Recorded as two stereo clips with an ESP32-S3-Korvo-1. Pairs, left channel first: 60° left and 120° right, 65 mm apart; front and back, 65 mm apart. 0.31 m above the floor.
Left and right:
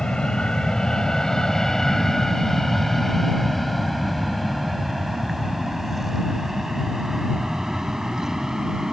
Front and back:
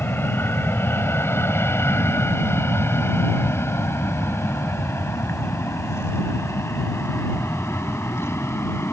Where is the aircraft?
5° right; by 8.9 s 40° right.